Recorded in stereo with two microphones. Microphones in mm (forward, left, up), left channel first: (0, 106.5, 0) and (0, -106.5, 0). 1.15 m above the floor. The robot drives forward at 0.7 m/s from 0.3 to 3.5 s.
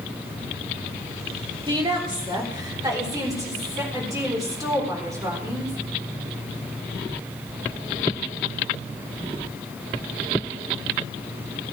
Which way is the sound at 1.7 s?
25° right (ahead or behind).